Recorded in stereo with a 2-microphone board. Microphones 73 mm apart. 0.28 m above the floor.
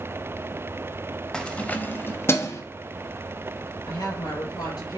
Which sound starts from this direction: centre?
Keys jangling, at 1.3 s.